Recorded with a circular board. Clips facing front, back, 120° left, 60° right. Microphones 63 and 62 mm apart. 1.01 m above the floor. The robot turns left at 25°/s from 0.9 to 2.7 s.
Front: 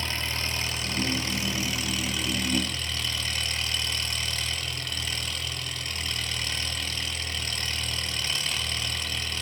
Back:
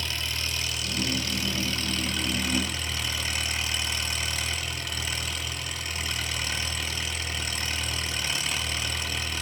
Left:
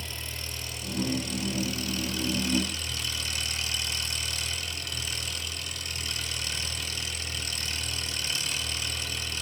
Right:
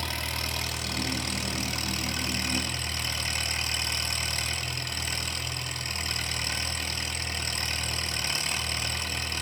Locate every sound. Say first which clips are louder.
0.0 s an engine running: front 2 dB, right 6 dB; 55° right, 2.5 m; by 9.4 s 100° right, 2.5 m